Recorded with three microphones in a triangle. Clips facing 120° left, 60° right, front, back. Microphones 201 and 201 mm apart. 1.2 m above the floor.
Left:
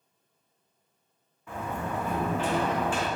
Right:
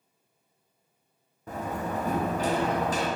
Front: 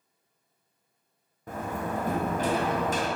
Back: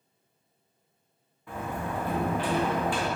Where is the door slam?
25° right, 0.6 m.